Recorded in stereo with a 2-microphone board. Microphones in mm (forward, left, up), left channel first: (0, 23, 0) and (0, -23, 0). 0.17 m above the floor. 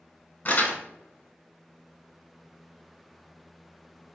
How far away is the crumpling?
About 0.7 m.